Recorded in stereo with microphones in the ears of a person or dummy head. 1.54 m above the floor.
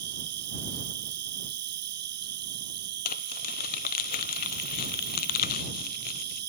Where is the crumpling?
50° left (ahead or behind).